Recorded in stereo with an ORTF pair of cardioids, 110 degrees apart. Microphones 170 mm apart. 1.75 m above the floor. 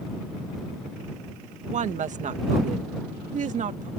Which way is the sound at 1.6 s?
50° right.